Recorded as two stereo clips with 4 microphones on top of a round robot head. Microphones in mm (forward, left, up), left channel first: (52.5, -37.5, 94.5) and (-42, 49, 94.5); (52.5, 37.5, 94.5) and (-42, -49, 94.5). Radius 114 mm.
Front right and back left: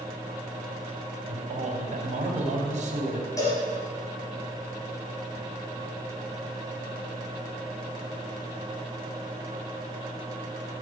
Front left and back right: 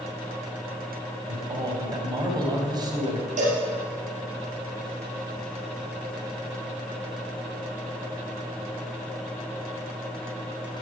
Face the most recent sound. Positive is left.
turn(degrees=-110)